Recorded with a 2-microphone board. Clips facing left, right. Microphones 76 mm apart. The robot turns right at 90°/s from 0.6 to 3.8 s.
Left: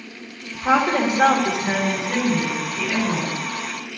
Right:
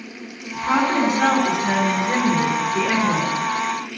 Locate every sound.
0.5 s a woman speaking: 65° left, 4 m; by 3.9 s 5° right, 4 m